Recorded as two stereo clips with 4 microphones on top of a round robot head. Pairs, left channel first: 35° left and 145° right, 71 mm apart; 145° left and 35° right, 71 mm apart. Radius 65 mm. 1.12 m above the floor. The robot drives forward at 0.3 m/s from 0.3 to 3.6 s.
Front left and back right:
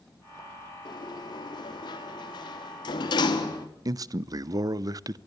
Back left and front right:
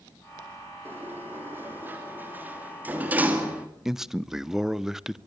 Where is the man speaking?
120° right, 0.7 m.